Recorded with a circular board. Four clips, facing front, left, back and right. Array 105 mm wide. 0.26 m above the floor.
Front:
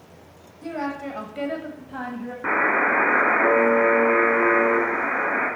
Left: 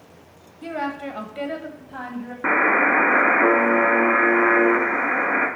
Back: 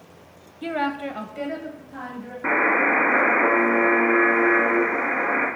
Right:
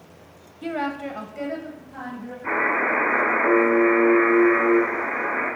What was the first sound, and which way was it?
A woman speaking, 165° right.